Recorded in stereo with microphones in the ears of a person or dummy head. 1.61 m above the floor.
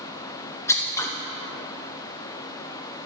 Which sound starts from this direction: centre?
Scissors, at 0.7 s.